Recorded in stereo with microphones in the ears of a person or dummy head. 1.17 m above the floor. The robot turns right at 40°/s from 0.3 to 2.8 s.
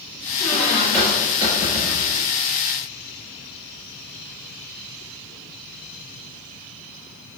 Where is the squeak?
150° left, 1.7 m; by 2.3 s 135° right, 1.7 m.